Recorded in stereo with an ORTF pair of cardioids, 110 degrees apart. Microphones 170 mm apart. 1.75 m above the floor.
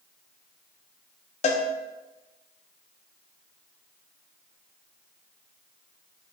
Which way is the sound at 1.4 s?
40° left.